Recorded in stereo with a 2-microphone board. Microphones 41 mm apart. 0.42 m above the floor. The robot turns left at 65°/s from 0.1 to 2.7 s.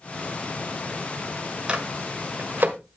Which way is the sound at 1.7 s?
25° right (ahead or behind).